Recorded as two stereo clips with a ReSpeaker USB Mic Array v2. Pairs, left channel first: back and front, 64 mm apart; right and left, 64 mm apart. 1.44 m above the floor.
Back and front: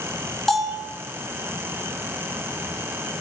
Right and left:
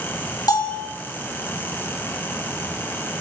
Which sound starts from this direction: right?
A bell, at 0.5 s.